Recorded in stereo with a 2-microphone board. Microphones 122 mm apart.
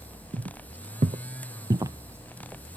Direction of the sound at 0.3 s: 65° right (ahead or behind).